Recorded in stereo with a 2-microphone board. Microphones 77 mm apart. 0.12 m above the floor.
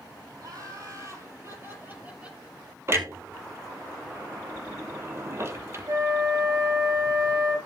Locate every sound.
0.4 s laughter: 50° right (ahead or behind), 4.5 m; by 2.4 s 10° right (ahead or behind), 3 m
2.9 s a clunk: 35° right (ahead or behind), 1.0 m
5.9 s a flute: 45° right (ahead or behind), 1.6 m